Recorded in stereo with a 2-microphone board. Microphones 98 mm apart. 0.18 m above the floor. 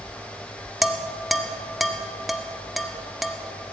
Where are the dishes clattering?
Centre (ahead or behind), 0.9 m.